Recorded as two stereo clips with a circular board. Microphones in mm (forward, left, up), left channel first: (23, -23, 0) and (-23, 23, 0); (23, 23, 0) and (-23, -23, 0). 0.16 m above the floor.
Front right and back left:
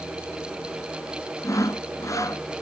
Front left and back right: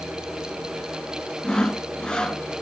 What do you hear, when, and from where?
1.4 s sawing: 30° right, 1.0 m